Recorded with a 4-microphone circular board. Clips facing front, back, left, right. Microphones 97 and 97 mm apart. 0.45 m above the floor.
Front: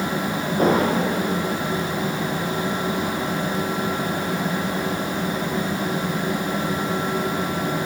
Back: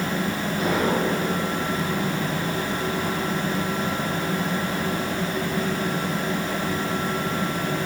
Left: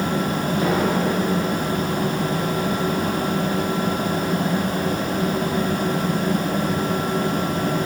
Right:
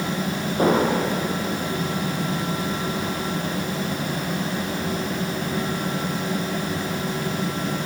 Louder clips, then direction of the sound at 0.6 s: Front 4 dB, right 3 dB; 45° right.